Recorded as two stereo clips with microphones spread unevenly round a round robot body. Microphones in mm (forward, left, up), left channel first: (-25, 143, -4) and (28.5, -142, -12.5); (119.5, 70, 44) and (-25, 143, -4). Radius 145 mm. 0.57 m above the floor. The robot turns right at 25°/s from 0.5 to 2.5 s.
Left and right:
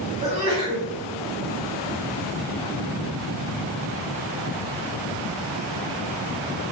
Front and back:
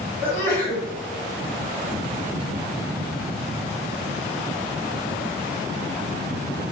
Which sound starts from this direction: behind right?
A sneeze, at 0.2 s.